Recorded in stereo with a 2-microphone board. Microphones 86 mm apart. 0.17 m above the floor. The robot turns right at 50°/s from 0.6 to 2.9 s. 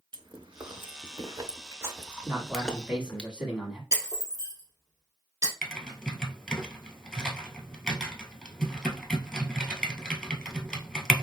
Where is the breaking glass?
40° right (ahead or behind), 2 m.